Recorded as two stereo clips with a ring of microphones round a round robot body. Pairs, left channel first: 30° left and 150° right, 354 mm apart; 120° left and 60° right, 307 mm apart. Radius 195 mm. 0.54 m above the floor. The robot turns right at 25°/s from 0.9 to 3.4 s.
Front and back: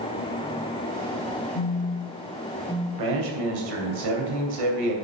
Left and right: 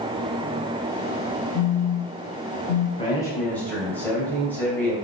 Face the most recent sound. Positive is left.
turn(degrees=-155)